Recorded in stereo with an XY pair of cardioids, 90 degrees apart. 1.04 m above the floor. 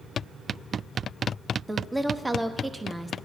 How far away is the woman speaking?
About 1.1 m.